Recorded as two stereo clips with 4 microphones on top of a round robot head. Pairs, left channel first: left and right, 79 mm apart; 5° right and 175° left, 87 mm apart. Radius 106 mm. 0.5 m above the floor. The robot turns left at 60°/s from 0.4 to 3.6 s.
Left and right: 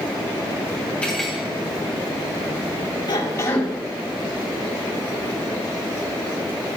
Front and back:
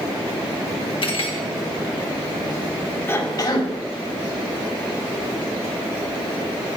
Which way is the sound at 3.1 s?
60° left.